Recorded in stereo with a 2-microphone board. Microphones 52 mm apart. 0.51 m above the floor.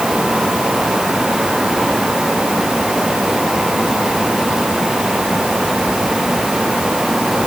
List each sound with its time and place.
Only background noise.